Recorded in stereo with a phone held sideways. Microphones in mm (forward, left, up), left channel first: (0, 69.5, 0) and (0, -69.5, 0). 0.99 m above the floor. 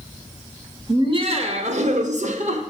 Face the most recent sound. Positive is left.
turn(degrees=-55)  # may be behind; listen again after turning